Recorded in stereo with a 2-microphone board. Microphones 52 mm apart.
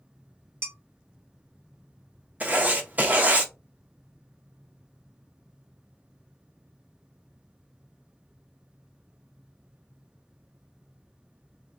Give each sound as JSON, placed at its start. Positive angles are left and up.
{"t": 0.6, "sound": "dishes clattering", "side_deg": -50, "distance_m": 1.2}
{"t": 2.4, "sound": "writing", "side_deg": -35, "distance_m": 0.7}